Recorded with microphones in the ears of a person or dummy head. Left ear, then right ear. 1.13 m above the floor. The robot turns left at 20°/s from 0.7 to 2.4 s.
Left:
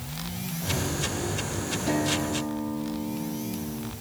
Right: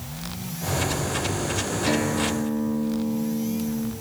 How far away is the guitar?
About 2.5 m.